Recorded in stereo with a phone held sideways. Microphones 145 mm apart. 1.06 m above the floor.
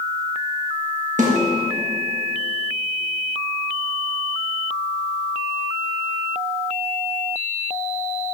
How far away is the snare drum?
About 1.5 m.